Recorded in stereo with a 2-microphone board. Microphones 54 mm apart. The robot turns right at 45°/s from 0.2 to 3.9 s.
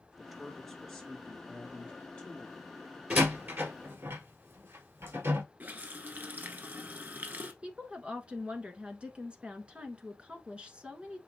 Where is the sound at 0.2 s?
5° right (ahead or behind), 1.2 m; by 3.0 s 20° left (ahead or behind), 1.2 m.